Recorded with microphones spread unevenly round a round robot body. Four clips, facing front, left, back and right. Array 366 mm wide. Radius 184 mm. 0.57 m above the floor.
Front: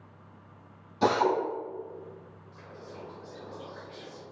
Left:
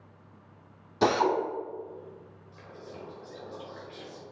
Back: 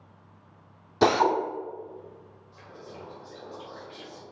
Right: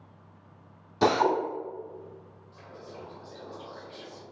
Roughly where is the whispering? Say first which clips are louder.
Even, back 1 dB; behind left.